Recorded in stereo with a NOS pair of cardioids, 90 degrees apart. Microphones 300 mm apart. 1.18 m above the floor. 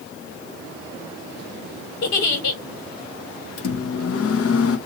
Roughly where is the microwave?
Ahead left.